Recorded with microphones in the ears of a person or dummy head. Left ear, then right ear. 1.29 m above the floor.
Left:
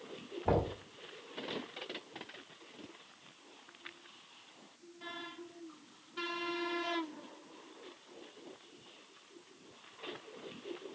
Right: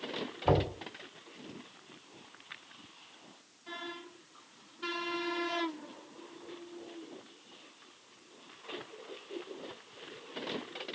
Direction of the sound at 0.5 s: 30° right (ahead or behind).